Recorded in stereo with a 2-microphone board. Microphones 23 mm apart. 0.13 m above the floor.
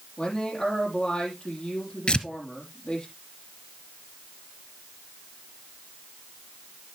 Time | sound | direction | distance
0.2 | a man speaking | 35° left (ahead or behind) | 4.5 m
2.1 | tearing paper | 45° left (ahead or behind) | 1.0 m